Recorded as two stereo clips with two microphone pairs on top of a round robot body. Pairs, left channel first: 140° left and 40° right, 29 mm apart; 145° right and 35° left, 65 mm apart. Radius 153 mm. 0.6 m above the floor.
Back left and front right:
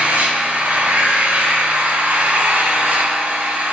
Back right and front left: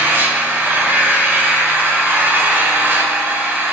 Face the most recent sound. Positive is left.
turn(degrees=-20)